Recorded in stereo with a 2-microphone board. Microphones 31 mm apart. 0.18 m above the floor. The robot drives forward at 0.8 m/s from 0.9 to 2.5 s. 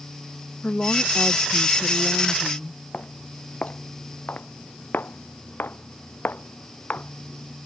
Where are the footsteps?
40° left (ahead or behind); by 7.6 s 55° left (ahead or behind).